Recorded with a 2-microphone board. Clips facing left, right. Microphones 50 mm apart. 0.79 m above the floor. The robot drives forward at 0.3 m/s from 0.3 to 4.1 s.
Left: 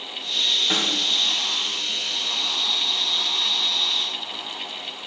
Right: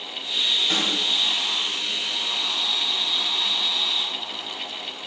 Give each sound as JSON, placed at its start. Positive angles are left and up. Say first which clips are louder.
{"t": 0.7, "sound": "a snare drum", "louder": "even", "side_deg": 15, "distance_m": 1.5}